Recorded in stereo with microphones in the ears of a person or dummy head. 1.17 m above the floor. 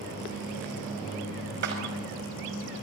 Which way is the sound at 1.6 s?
60° right (ahead or behind).